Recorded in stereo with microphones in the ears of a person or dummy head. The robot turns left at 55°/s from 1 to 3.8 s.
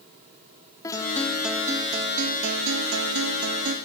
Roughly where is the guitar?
Ahead.